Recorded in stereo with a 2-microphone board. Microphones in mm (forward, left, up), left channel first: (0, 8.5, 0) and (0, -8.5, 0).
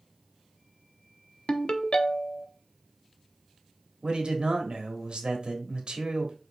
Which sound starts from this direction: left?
A ringtone, at 1.5 s.